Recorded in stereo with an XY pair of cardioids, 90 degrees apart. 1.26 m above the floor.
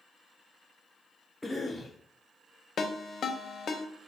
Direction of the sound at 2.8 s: 55° left.